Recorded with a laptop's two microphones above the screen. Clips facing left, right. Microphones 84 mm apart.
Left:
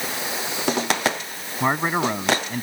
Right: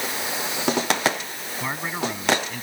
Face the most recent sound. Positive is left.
turn(degrees=40)  # may be behind; listen again after turning